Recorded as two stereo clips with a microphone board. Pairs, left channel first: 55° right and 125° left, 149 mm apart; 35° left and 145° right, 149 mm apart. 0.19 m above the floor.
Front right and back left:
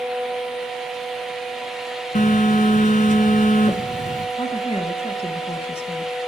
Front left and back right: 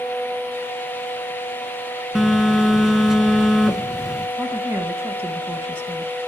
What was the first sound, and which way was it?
A phone buzzing, 60° right.